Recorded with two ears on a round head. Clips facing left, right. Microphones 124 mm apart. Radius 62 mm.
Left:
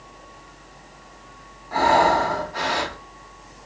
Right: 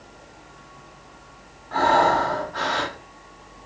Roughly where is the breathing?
Centre.